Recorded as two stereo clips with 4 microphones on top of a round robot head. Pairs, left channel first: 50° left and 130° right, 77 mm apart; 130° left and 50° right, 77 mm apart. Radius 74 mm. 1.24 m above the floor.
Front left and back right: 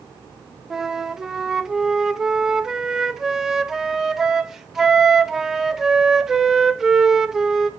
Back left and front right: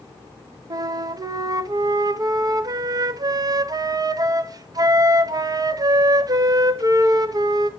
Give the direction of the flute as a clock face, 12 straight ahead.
2 o'clock.